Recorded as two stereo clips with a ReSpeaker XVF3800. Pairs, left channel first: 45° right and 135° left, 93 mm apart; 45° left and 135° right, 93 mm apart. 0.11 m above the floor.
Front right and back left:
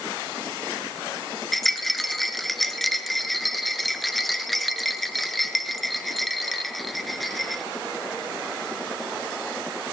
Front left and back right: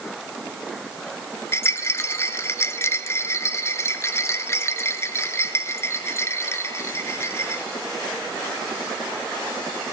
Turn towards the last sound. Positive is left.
turn(degrees=45)